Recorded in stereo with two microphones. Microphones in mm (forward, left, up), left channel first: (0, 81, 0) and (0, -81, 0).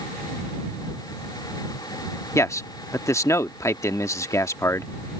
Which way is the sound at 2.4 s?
20° left (ahead or behind).